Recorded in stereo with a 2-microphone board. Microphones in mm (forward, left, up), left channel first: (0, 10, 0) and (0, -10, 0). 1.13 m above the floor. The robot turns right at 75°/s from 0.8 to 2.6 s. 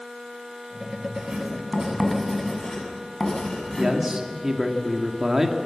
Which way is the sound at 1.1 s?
80° right.